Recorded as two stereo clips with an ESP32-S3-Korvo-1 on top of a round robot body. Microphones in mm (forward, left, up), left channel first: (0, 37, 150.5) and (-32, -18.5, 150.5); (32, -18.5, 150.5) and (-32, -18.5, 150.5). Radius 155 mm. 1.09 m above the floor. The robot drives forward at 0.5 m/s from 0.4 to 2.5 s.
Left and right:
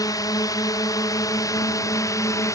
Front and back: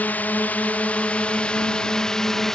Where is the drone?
65° left; by 2.6 s 85° left.